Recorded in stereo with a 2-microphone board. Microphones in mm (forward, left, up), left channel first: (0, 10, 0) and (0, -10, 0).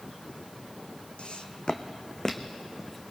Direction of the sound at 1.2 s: 70° left (ahead or behind).